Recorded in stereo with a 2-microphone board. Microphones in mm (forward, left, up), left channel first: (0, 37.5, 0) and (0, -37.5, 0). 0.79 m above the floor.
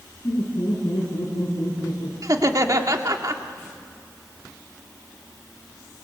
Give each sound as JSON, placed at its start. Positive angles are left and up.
{"t": 0.2, "sound": "laughter", "side_deg": 55, "distance_m": 8.5}
{"t": 2.2, "sound": "laughter", "side_deg": -50, "distance_m": 1.9}